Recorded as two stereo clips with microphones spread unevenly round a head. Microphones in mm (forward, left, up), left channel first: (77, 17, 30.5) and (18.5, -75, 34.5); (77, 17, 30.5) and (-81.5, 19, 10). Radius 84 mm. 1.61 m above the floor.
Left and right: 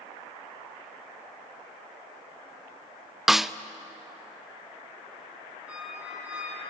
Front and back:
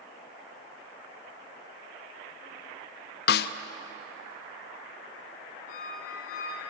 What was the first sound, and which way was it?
A snare drum, 35° right.